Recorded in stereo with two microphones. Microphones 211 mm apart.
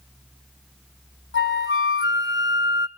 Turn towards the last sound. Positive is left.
turn(degrees=70)  # may be behind; listen again after turning